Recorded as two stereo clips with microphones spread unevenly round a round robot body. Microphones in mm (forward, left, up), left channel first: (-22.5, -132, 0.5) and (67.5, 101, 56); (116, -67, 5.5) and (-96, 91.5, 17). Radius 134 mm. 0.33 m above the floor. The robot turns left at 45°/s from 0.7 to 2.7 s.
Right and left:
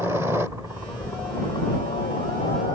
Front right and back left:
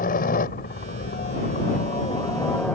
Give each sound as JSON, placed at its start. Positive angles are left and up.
{"t": 0.0, "sound": "a helicopter", "azimuth_deg": -25}